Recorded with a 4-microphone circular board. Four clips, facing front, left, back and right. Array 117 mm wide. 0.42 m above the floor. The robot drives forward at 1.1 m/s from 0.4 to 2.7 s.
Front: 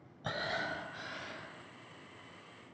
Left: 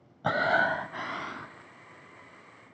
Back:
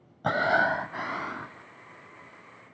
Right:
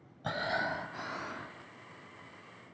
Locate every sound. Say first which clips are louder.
0.2 s breathing: left 8 dB, back 14 dB; 140° left, 0.8 m; by 1.6 s 165° left, 2 m